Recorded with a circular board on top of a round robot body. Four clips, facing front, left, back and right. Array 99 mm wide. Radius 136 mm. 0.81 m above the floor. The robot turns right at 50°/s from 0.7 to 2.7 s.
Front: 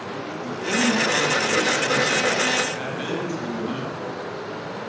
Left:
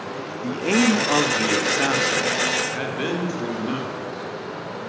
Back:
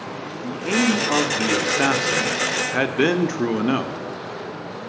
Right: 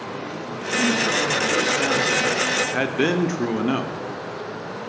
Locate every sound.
0.4 s a man speaking: 105° left, 3 m; by 3.9 s 155° right, 3 m